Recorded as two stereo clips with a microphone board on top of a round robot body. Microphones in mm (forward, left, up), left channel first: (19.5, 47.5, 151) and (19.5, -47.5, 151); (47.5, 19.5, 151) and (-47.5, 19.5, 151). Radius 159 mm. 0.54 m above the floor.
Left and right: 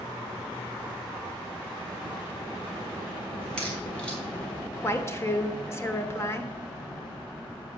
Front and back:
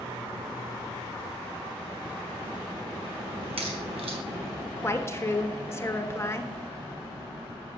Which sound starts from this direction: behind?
A crack, at 3.4 s.